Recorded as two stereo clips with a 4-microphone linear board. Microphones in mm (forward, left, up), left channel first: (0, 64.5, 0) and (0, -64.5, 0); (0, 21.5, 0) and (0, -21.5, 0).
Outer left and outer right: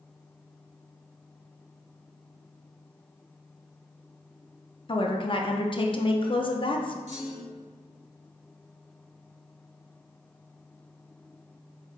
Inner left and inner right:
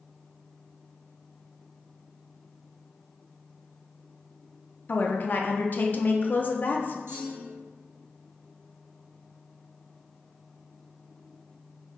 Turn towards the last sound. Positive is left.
turn(degrees=-60)  # may be behind; listen again after turning